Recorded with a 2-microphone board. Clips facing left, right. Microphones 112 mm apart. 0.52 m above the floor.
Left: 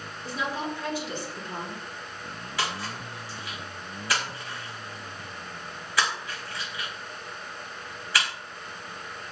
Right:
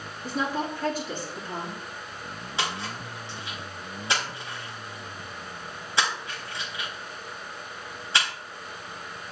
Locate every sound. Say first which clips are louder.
0.2 s a woman speaking: right 3 dB; 45° right (ahead or behind), 4 m
2.6 s a splash: even; 25° right (ahead or behind), 4 m